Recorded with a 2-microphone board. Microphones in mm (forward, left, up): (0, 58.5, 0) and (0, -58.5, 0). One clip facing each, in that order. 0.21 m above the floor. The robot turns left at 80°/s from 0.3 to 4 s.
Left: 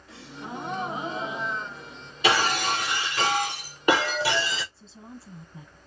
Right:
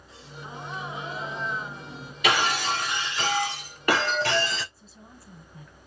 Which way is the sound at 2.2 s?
150° left.